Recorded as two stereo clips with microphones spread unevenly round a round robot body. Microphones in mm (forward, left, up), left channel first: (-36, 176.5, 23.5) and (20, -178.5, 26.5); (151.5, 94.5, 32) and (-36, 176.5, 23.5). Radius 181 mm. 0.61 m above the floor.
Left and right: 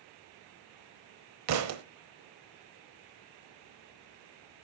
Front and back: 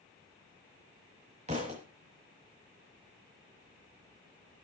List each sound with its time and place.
1.5 s a thud: 130° right, 1.0 m